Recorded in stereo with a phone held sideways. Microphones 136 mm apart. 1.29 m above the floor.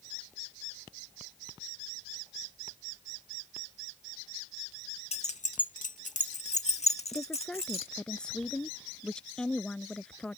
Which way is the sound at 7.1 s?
5° left (ahead or behind).